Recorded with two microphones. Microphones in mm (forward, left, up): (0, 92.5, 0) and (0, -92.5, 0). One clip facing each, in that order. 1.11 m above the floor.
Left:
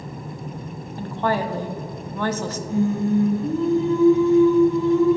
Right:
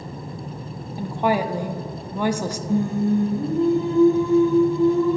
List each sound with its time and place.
1.0 s a woman speaking: 10° right (ahead or behind), 0.6 m
2.7 s singing: 50° right (ahead or behind), 1.9 m